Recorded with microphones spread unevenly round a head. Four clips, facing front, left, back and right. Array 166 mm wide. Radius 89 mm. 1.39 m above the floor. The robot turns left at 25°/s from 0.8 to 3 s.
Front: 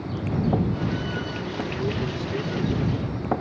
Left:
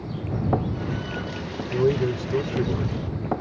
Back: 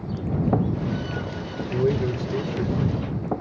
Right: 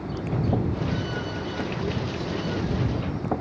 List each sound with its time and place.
1.7 s a man speaking: 140° left; by 3.3 s 105° left